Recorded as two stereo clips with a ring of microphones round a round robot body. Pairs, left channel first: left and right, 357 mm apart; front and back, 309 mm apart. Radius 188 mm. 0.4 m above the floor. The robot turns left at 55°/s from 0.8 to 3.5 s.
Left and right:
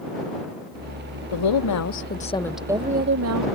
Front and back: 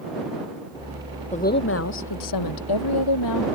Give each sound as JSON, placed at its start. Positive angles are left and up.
{"t": 1.3, "sound": "a woman speaking", "azimuth_deg": 70}